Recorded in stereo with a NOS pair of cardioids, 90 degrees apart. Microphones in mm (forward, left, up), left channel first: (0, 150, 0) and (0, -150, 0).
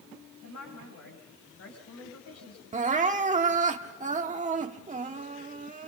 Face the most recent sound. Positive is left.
turn(degrees=-25)